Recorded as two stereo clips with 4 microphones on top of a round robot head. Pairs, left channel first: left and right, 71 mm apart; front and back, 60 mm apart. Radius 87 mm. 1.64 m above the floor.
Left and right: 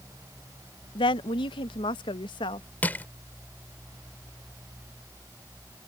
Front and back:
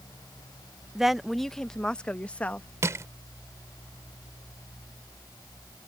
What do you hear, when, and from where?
0.9 s a woman speaking: 100° left; by 2.7 s 65° left
2.8 s crushing: 150° left